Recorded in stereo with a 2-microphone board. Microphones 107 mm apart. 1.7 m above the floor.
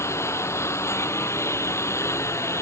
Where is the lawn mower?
25° left (ahead or behind).